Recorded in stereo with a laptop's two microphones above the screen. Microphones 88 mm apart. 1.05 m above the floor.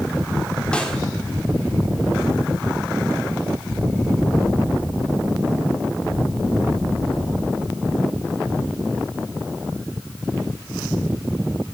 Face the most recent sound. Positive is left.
turn(degrees=15)  # may be behind; listen again after turning